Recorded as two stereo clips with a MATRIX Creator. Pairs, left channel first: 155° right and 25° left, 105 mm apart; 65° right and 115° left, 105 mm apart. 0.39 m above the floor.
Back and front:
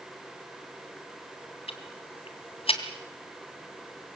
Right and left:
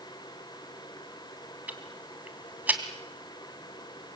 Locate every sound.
1.7 s ticking: 175° right, 2.5 m